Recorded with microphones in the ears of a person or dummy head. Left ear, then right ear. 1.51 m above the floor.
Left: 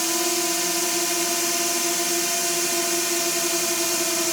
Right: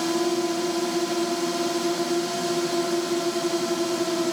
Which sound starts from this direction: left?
A drone, at 0.0 s.